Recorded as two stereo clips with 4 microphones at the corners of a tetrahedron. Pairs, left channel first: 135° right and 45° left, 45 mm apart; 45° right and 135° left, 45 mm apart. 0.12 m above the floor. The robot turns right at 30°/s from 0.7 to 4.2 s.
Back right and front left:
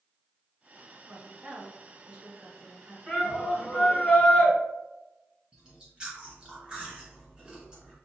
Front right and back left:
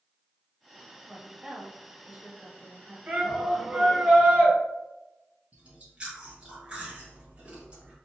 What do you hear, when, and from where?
1.1 s a woman speaking: 60° left, 1.6 m; by 3.0 s 120° left, 1.6 m
3.1 s a shout: 135° left, 1.9 m; by 4.5 s 170° left, 1.9 m
5.5 s chewing: 95° left, 1.4 m